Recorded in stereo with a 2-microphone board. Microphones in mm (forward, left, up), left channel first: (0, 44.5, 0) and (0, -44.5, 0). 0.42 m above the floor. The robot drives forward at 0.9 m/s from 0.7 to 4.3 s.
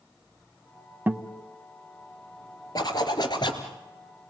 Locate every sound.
1.1 s a guitar: 20° right (ahead or behind), 0.9 m; by 1.4 s 15° right (ahead or behind), 1.2 m
2.8 s a zipper: 45° left (ahead or behind), 3 m; by 3.7 s 60° left (ahead or behind), 2.5 m